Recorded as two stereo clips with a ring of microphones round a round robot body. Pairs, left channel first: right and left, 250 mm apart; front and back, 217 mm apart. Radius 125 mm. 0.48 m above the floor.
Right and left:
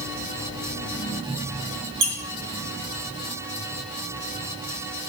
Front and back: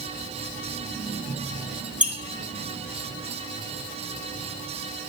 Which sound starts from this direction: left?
A squeak, at 2.0 s.